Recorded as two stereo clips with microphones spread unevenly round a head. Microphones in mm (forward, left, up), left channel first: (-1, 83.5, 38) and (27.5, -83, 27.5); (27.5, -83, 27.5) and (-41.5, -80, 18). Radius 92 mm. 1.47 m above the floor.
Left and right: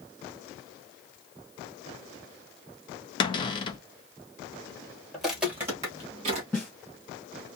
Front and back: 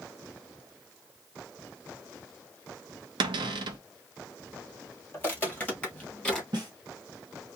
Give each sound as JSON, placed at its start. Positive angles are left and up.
{"t": 3.2, "sound": "a cupboard door", "azimuth_deg": 165, "distance_m": 0.5}
{"t": 5.1, "sound": "footsteps", "azimuth_deg": 20, "distance_m": 1.6}
{"t": 6.5, "sound": "a snare drum", "azimuth_deg": 175, "distance_m": 2.0}